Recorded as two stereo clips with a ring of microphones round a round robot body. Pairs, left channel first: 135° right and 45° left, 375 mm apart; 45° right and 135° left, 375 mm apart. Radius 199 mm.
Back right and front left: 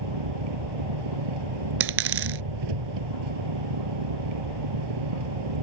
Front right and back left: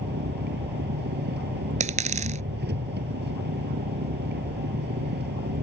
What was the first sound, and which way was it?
An engine running, 70° left.